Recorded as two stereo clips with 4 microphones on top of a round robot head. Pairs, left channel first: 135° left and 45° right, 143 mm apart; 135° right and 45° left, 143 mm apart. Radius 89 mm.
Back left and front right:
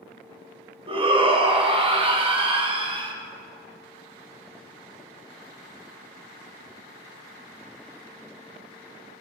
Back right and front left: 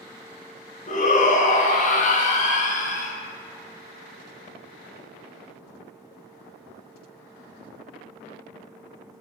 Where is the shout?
100° right, 1.1 m.